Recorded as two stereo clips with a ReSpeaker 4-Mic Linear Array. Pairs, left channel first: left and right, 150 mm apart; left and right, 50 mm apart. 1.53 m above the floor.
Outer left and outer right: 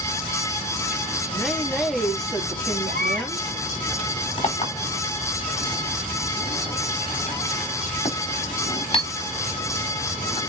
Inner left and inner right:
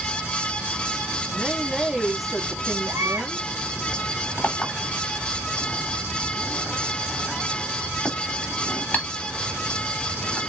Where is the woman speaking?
Centre (ahead or behind), 3 m.